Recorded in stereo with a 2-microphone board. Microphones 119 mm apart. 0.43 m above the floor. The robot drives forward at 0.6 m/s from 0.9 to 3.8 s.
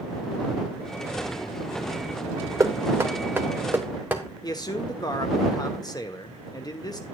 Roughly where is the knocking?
Right.